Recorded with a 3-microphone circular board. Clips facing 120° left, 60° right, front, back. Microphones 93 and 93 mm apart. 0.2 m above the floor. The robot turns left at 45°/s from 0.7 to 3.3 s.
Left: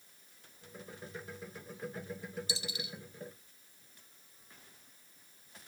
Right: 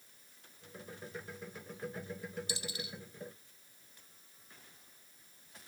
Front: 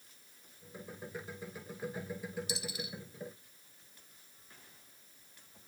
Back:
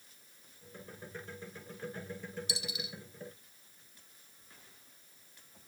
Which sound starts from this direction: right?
A dropped coin, at 2.5 s.